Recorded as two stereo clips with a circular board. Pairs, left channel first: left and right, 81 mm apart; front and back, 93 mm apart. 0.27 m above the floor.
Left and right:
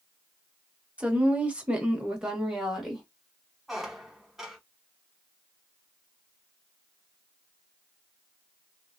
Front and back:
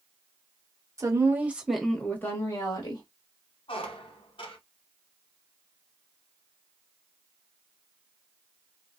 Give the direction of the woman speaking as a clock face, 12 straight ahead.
5 o'clock.